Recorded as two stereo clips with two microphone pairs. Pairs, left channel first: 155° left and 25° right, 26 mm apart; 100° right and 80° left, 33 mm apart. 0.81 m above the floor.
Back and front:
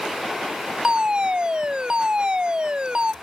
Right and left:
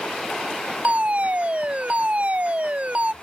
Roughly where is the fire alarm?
Ahead left.